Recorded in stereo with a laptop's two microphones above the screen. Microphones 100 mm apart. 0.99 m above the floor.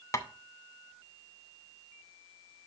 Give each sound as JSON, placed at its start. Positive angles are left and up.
{"t": 0.1, "sound": "tapping", "side_deg": 35, "distance_m": 0.5}